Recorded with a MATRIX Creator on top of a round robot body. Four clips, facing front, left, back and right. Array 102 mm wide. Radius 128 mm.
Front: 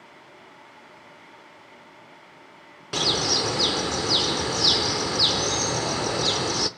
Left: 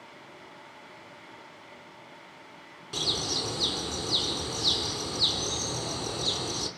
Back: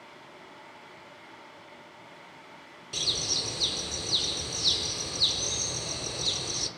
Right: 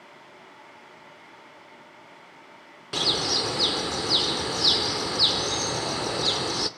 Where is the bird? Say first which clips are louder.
Right 6 dB, front 13 dB; 25° right, 0.8 m.